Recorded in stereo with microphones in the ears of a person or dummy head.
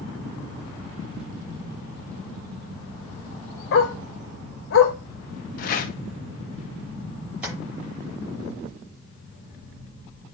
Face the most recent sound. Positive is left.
turn(degrees=-5)  # may be behind; listen again after turning